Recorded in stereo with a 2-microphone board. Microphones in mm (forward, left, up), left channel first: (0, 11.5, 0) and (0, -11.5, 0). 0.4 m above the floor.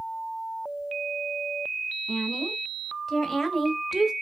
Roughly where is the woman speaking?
Centre.